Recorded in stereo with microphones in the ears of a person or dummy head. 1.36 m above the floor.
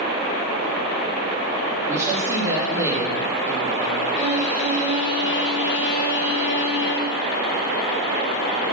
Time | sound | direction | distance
1.9 | a woman speaking | 15° right (ahead or behind) | 3 m
4.2 | a violin | 40° left (ahead or behind) | 3.5 m